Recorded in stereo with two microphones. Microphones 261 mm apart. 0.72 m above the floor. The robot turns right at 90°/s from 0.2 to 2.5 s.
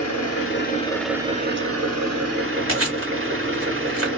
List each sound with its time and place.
0.0 s an engine running: 105° left, 1.0 m; by 4.2 s 50° right, 1.0 m
2.7 s chewing: 55° right (ahead or behind), 1.5 m